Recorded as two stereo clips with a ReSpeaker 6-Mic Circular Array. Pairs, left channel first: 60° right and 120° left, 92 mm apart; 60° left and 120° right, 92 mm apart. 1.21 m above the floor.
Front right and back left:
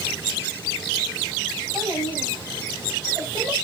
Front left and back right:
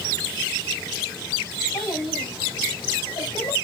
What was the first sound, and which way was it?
A child speaking, 80° left.